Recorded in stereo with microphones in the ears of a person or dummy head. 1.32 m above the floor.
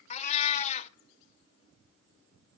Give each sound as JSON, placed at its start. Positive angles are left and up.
{"t": 0.1, "sound": "a cat meowing", "side_deg": 35, "distance_m": 1.0}